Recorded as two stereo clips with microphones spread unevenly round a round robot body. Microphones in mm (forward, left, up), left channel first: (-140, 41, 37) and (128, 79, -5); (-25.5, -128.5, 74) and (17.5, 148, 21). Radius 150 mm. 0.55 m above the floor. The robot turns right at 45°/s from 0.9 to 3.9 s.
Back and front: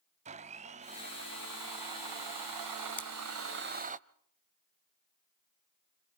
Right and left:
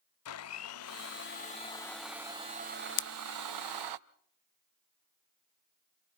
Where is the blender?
60° right, 0.8 m; by 4.0 s 75° left, 0.8 m.